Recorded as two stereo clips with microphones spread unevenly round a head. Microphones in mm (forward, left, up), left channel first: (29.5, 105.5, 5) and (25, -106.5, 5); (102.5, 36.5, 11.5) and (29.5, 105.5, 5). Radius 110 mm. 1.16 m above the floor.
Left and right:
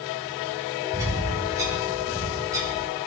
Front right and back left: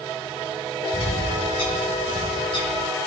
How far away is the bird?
About 2.5 m.